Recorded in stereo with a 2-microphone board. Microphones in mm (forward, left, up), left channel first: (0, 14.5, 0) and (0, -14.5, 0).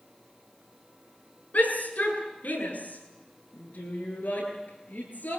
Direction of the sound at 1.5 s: 75° left (ahead or behind).